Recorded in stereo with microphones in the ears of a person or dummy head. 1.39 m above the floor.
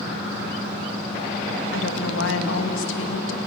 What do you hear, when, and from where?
1.7 s a woman speaking: 80° left, 2.0 m